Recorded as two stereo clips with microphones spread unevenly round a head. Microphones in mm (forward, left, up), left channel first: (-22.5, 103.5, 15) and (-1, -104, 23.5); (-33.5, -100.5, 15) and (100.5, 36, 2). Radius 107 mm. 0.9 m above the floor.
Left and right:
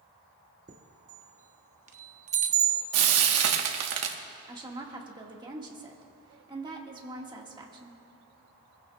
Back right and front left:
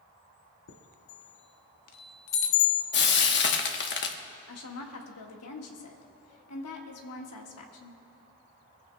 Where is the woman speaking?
155° right, 1.6 m.